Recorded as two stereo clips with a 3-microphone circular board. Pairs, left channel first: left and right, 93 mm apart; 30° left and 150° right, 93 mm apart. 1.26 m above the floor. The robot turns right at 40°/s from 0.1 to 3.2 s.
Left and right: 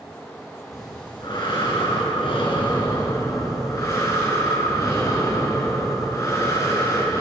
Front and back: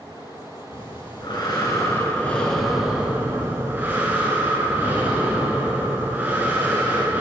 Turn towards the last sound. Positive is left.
turn(degrees=140)